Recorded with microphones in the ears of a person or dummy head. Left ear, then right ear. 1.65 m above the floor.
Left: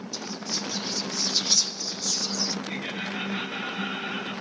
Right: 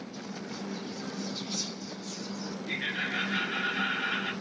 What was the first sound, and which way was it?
Whispering, 55° left (ahead or behind).